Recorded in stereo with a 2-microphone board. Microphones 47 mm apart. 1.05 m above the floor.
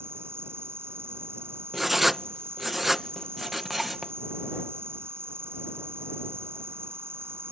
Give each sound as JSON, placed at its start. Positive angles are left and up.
{"t": 0.0, "sound": "an insect", "side_deg": -60}
{"t": 1.7, "sound": "writing", "side_deg": -5}